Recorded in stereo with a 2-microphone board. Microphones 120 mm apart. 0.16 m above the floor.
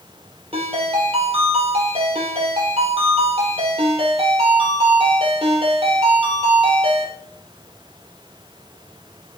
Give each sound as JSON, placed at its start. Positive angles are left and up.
{"t": 0.5, "sound": "a ringtone", "side_deg": -55, "distance_m": 3.0}